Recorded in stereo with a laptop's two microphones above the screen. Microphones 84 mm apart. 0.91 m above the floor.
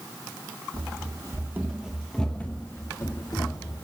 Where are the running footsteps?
55° right (ahead or behind), 1.8 m; by 3.8 s 55° left (ahead or behind), 2.5 m.